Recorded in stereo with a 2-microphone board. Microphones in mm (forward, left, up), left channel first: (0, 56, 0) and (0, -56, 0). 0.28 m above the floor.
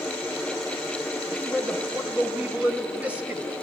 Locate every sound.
1.3 s a man speaking: 15° right (ahead or behind), 0.9 m